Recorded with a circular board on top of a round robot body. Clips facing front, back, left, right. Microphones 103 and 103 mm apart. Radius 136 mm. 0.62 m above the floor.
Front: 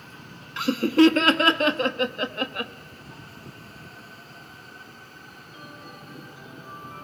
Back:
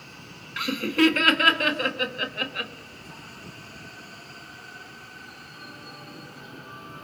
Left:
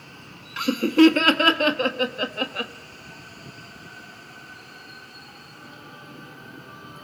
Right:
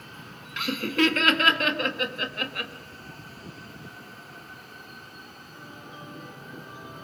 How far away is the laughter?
About 1.6 m.